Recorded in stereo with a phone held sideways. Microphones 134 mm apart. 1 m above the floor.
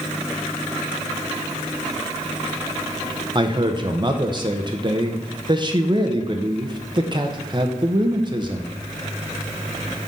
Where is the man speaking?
35° right (ahead or behind), 0.9 m.